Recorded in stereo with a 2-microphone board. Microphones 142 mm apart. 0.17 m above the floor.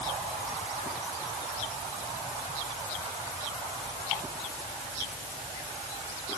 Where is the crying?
No crying in this recording.